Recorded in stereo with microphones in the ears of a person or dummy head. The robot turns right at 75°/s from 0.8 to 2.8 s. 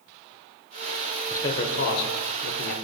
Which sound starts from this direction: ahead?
A man speaking, at 1.3 s.